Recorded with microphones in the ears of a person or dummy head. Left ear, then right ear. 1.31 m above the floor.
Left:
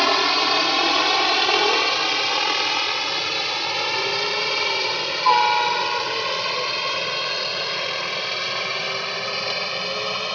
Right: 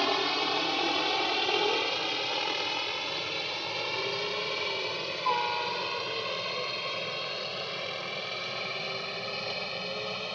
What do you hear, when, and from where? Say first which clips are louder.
0.0 s a helicopter: left 9 dB; 55° left (ahead or behind); by 10.3 s 65° left (ahead or behind)